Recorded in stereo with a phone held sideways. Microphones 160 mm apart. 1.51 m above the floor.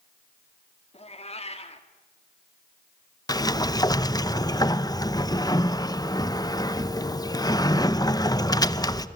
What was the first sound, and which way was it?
A cat meowing, 40° left (ahead or behind).